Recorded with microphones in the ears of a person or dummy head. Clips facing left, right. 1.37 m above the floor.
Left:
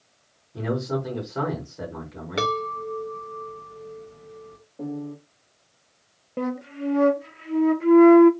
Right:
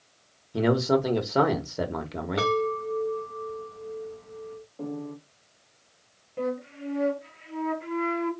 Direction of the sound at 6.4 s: 55° left (ahead or behind).